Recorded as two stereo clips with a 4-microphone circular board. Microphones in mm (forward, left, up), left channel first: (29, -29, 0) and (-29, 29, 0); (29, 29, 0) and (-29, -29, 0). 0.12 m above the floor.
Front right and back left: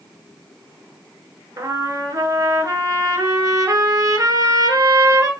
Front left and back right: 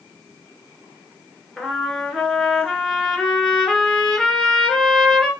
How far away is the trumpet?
About 1.0 m.